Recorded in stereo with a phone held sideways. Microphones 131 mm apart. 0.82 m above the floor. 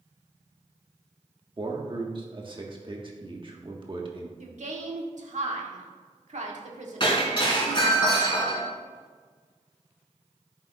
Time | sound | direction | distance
1.6 | a man speaking | 40° right (ahead or behind) | 1.5 m
4.4 | a woman speaking | 65° right (ahead or behind) | 1.6 m
7.0 | breaking glass | 35° left (ahead or behind) | 3 m